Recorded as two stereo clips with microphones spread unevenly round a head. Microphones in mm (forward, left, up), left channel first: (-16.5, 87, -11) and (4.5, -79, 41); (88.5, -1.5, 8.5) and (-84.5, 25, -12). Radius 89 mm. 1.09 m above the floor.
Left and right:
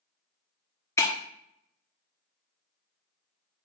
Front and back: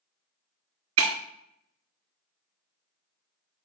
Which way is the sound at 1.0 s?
175° left.